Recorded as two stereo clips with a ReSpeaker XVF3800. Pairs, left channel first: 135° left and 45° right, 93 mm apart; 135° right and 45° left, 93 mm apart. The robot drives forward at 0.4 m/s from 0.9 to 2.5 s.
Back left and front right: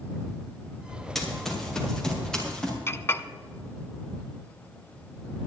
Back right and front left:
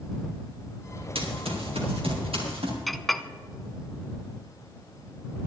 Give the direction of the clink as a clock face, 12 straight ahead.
7 o'clock.